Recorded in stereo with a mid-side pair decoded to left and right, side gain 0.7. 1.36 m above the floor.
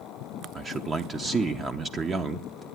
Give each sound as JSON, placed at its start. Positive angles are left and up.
{"t": 0.6, "sound": "a man speaking", "azimuth_deg": -25, "distance_m": 0.5}